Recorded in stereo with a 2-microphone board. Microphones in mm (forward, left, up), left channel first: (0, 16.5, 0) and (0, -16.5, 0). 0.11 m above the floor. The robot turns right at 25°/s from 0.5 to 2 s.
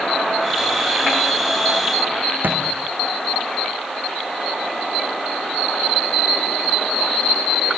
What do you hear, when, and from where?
2.4 s a thud: 70° right (ahead or behind), 3 m